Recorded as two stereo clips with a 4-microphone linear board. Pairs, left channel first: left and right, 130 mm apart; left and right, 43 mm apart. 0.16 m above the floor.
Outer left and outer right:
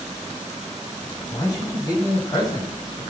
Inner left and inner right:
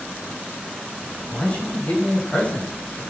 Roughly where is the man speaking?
Left.